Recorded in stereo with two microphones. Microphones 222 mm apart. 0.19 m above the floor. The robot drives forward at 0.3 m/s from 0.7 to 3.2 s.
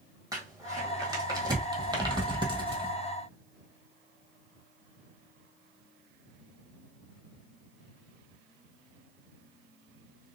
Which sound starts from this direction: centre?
Crumpling, at 0.3 s.